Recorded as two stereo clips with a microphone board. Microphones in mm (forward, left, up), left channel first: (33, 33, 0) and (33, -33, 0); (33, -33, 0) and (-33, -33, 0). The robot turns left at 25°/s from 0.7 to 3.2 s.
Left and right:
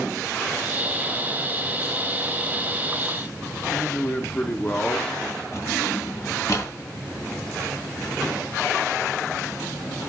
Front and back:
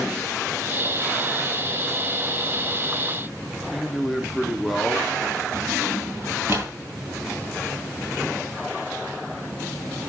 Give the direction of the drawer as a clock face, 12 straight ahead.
8 o'clock.